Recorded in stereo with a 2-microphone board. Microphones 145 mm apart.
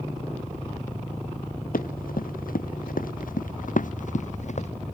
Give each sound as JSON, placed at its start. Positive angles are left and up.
{"t": 1.7, "sound": "running footsteps", "side_deg": 80}